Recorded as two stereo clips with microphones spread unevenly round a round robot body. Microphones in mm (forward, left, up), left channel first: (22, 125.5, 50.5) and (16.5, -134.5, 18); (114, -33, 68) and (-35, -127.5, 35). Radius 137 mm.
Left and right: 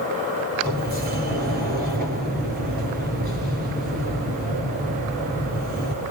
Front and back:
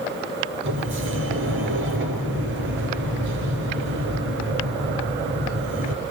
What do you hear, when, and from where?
0.6 s a sliding door: 150° right, 4.5 m